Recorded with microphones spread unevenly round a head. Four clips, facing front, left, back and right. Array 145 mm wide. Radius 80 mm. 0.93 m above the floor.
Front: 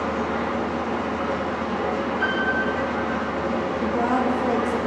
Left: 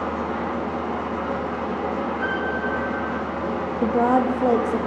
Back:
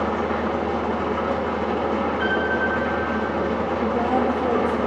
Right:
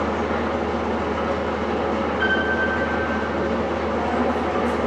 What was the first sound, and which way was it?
An engine running, 140° right.